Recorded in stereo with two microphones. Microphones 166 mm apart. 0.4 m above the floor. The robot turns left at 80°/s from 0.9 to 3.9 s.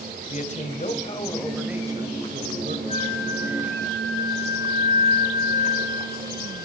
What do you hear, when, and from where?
0.3 s a man speaking: 55° left, 2 m; by 2.8 s 95° right, 2 m
2.9 s a flute: 50° left, 9.5 m; by 6.6 s 30° right, 9.5 m